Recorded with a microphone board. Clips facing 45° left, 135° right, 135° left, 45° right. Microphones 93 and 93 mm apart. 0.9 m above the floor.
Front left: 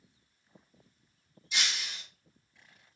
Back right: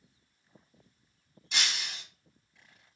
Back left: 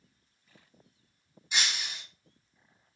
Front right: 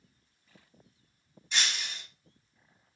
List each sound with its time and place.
1.5 s breaking glass: 150° right, 0.6 m